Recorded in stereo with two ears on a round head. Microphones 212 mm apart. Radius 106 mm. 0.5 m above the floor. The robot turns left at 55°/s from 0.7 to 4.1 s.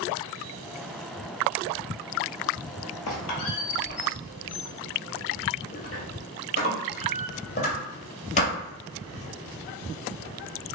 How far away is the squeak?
About 1.0 m.